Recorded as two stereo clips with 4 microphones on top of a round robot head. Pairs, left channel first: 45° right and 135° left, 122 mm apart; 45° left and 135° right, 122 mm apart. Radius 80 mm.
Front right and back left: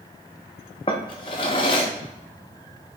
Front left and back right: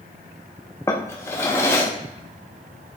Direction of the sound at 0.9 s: 20° right.